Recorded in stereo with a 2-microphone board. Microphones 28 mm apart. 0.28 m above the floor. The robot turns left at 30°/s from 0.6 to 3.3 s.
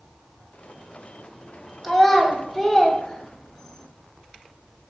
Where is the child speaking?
10° right (ahead or behind), 1.1 m; by 3.9 s 20° left (ahead or behind), 1.1 m.